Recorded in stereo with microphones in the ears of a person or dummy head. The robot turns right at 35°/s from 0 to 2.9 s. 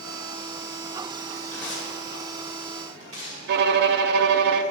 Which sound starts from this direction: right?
A violin, at 3.5 s.